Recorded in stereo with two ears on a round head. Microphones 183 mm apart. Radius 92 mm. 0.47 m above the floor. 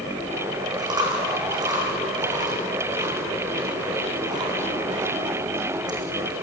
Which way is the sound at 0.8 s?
20° right (ahead or behind).